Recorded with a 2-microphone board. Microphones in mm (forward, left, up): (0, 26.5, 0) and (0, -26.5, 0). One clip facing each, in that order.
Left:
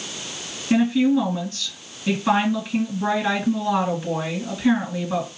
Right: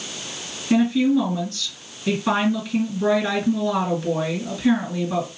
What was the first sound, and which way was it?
A woman speaking, 5° left (ahead or behind).